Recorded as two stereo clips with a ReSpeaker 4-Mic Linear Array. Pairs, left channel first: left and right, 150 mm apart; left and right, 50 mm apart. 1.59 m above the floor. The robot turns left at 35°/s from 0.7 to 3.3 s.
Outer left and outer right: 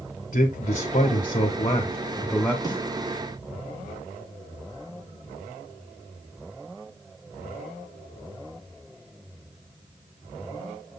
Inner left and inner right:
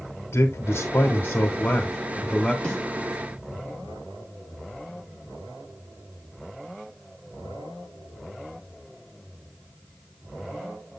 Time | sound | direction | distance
0.3 | a man speaking | 75° left | 1.5 m
2.6 | a snare drum | 25° left (ahead or behind) | 6.5 m